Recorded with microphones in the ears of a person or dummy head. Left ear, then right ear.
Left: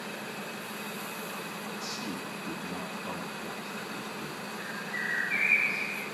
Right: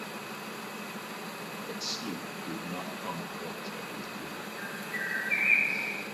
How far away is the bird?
About 9 m.